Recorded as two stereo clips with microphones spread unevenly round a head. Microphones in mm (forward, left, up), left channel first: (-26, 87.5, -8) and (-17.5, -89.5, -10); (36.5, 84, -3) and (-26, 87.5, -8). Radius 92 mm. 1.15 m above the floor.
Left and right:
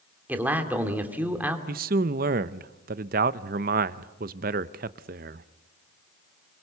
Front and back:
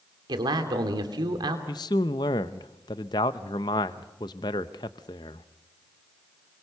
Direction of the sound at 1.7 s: 40° right.